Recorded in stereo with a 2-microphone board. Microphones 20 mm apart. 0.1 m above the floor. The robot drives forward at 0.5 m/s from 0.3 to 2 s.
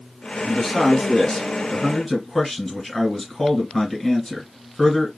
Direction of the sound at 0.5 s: 15° left (ahead or behind).